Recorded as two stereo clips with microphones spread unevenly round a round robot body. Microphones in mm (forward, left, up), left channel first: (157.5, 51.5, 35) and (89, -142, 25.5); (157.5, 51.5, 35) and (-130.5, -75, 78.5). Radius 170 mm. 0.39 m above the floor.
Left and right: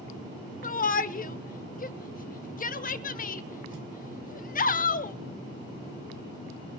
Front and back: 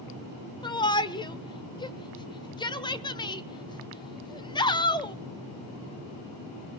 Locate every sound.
0.6 s a shout: 80° left, 1.1 m